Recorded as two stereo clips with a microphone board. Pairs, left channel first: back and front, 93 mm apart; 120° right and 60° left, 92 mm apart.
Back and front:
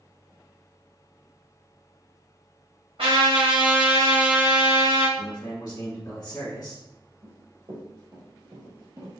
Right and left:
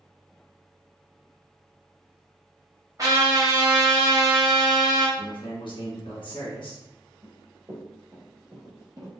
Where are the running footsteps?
5° right, 1.8 m; by 9.2 s 45° left, 1.4 m.